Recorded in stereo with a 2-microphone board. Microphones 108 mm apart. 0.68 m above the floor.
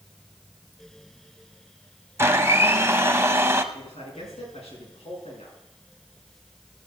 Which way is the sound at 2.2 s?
25° right (ahead or behind).